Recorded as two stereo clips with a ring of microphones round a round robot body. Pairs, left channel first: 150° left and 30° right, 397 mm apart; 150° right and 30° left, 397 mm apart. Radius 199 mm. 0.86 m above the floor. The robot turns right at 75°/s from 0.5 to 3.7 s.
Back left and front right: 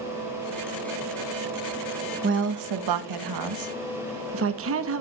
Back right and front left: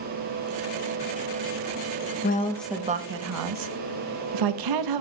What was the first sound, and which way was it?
A woman speaking, 90° right.